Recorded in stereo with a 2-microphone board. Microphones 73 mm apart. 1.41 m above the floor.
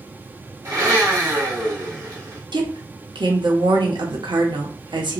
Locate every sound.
0.7 s a blender: 45° right (ahead or behind), 1.5 m
2.5 s a woman speaking: 70° right (ahead or behind), 0.9 m